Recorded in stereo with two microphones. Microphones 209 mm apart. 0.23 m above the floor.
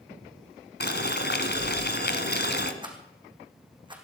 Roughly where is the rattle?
Right.